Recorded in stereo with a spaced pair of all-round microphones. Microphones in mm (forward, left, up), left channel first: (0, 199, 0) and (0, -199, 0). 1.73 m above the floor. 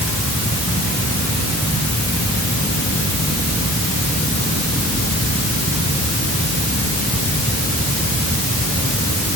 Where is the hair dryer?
I don't hear a hair dryer.